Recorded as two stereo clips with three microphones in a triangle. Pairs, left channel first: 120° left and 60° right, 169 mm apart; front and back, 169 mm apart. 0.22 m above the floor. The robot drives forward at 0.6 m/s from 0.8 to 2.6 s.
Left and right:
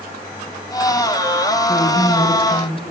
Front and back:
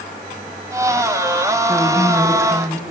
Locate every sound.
1.7 s a woman speaking: 95° left, 1.7 m; by 2.8 s 130° left, 1.8 m